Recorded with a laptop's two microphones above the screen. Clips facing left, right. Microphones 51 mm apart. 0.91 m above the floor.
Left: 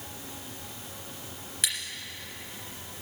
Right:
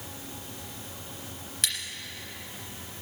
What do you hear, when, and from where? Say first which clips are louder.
1.6 s scissors: even; centre (ahead or behind), 2 m